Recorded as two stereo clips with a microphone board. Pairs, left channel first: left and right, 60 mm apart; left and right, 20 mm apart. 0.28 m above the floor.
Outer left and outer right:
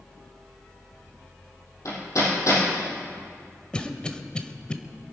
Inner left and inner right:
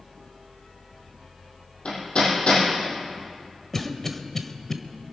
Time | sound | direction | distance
1.9 | hammering | 60° left (ahead or behind) | 6 m
3.7 | a cough | 15° left (ahead or behind) | 1.1 m